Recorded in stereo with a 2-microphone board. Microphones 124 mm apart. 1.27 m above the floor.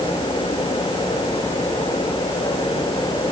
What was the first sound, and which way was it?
Only background noise.